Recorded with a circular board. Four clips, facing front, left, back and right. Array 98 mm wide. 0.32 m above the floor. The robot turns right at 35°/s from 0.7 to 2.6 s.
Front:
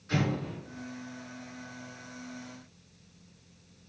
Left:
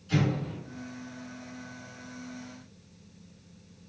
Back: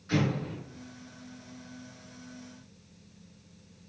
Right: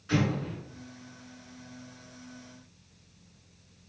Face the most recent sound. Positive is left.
turn(degrees=-35)